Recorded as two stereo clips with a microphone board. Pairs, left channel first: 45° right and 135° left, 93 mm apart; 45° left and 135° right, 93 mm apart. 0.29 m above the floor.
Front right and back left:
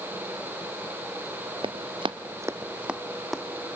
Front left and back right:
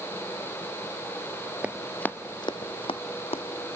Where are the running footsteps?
150° left, 0.8 m; by 3.4 s 45° left, 1.6 m.